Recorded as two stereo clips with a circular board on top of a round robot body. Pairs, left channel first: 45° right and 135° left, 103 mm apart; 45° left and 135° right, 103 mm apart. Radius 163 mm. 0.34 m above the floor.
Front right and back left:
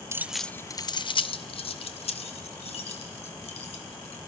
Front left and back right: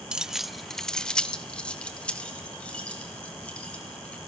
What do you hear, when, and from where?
0.1 s keys jangling: 155° left, 0.8 m; by 4.2 s 35° right, 4.5 m